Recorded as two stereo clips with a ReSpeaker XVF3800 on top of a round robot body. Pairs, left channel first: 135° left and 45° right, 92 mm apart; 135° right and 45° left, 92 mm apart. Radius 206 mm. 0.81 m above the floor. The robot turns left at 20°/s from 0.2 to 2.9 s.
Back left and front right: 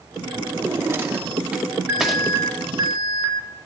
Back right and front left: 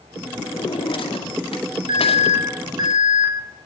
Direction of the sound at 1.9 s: 20° left.